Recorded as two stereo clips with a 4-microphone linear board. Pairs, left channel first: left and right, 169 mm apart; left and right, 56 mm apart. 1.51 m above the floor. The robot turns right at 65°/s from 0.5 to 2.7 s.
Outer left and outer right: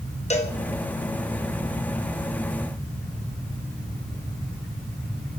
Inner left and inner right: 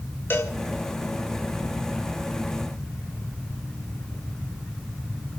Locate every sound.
0.3 s a cowbell: 40° left (ahead or behind), 1.7 m